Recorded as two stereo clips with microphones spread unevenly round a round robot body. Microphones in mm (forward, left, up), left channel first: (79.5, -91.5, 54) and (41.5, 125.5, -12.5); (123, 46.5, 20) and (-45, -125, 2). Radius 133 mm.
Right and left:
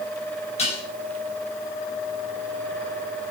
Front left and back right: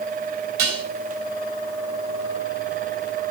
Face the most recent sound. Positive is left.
turn(degrees=-150)